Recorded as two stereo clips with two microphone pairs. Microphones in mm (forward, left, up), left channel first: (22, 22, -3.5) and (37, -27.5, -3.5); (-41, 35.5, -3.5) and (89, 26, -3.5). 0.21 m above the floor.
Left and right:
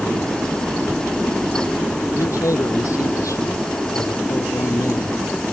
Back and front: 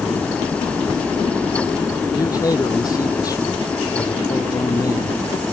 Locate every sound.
2.1 s a man speaking: 115° left